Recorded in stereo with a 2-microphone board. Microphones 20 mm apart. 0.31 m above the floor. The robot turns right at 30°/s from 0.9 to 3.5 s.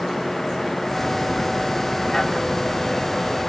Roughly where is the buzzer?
No buzzer in this recording.